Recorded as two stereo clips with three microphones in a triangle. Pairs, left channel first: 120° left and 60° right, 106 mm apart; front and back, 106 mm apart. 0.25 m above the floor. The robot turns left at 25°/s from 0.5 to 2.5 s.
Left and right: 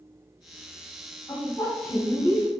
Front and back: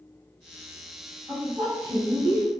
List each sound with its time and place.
1.3 s a woman speaking: 115° left, 1.4 m; by 2.5 s 85° left, 1.4 m